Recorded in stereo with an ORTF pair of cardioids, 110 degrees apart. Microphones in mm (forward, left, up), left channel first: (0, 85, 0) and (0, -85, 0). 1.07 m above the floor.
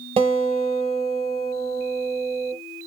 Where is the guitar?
35° right, 2.5 m.